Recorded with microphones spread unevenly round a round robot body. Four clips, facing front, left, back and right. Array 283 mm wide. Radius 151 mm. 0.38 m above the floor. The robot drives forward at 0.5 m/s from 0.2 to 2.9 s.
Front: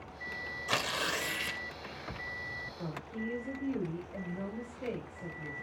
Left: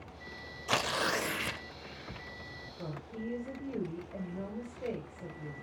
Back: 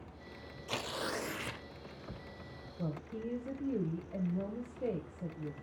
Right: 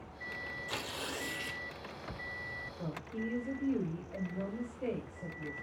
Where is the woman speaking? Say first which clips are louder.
Right 1 dB, back 1 dB; 175° right, 1.8 m.